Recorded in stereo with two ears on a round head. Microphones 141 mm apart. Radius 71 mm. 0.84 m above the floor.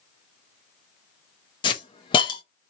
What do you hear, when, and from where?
1.6 s a hiss: 30° left (ahead or behind), 0.6 m